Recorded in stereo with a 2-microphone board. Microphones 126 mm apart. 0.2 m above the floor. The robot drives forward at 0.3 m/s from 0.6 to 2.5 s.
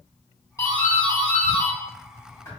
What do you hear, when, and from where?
0.6 s a doorbell: 25° left (ahead or behind), 2.0 m